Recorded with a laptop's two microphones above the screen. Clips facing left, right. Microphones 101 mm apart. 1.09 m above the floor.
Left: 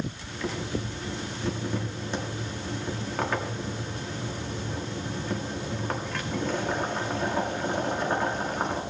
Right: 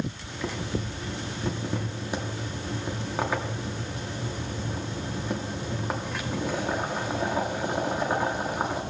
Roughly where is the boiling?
Centre.